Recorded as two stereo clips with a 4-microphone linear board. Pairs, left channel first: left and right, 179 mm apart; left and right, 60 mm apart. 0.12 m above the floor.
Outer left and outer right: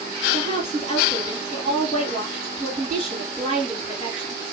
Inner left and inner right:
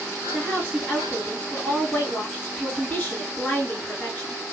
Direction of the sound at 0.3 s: 30° left (ahead or behind).